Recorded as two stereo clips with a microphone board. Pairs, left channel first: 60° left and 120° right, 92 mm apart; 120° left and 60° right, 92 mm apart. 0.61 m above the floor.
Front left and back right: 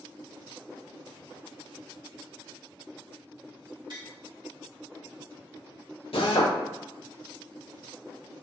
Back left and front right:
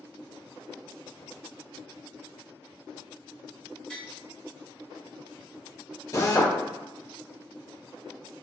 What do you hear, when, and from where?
3.9 s tapping: 160° right, 1.8 m
6.1 s a drill: 65° left, 0.8 m